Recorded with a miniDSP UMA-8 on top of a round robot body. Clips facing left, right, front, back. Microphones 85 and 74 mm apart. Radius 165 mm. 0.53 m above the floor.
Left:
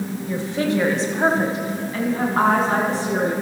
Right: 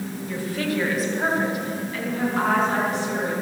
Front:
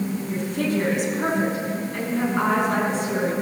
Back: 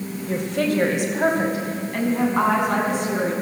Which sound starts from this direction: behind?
A woman speaking, at 0.3 s.